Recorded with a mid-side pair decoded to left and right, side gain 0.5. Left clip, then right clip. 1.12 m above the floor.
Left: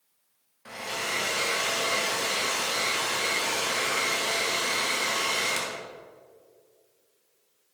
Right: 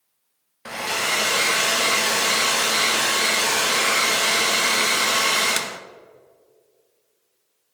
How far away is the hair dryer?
About 1.0 m.